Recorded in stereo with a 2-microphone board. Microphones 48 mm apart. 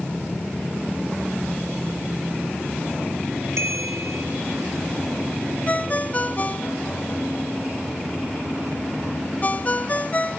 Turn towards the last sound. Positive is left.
turn(degrees=35)  # may be behind; listen again after turning